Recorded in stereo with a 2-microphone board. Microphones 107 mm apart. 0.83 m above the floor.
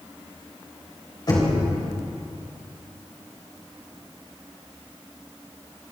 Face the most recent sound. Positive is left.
turn(degrees=45)  # may be behind; listen again after turning